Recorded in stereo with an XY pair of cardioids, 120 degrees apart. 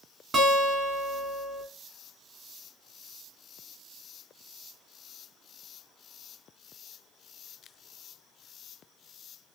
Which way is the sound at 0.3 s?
35° right.